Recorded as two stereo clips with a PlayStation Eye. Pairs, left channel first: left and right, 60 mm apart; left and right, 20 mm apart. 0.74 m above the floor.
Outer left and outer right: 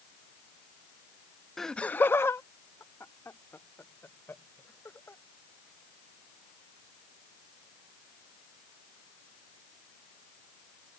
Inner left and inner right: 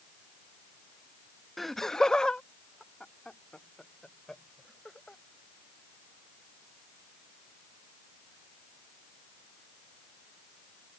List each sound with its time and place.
1.6 s laughter: 5° left (ahead or behind); by 5.2 s 40° left (ahead or behind)